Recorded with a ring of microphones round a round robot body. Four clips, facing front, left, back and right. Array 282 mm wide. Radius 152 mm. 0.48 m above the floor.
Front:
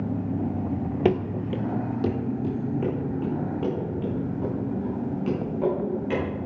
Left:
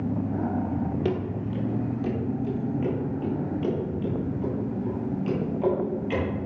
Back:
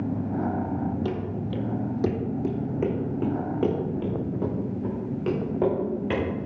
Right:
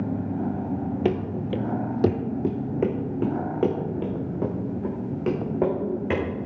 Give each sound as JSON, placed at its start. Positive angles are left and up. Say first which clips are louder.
{"t": 1.1, "sound": "running footsteps", "louder": "right 3 dB, front 6 dB", "azimuth_deg": -20, "distance_m": 0.6}